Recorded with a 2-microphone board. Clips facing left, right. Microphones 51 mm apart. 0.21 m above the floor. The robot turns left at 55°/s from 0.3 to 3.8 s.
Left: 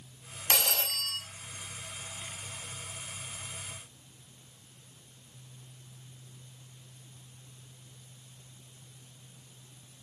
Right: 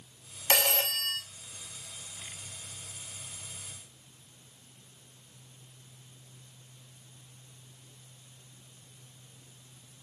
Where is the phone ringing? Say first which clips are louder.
Right 3 dB; 70° right, 0.7 m; by 1.2 s 105° right, 0.7 m.